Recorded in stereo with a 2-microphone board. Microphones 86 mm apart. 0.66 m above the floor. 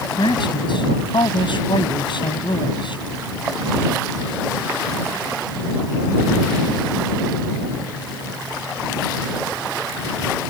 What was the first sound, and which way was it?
A man speaking, 75° left (ahead or behind).